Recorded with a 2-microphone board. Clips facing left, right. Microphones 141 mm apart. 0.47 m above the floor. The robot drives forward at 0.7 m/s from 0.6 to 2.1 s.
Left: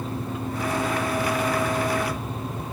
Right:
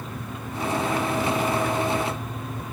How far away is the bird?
I don't hear a bird.